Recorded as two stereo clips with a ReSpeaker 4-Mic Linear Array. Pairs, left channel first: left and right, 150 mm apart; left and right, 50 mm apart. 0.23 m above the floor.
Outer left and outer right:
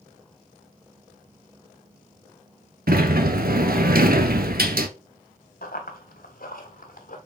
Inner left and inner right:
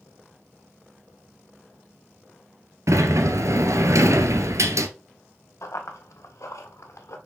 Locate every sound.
2.9 s a sliding door: 85° right, 0.8 m
5.6 s running footsteps: 85° left, 2.5 m; by 7.2 s 65° left (ahead or behind), 2.5 m